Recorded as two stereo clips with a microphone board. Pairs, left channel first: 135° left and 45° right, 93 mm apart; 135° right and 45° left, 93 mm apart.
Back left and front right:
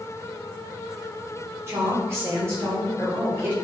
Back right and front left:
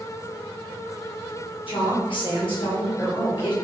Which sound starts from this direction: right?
A woman speaking, at 1.7 s.